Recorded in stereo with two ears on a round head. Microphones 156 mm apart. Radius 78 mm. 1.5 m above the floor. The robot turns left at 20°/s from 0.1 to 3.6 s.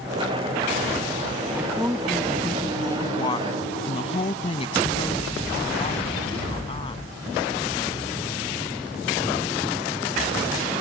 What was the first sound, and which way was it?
A woman speaking, 170° right.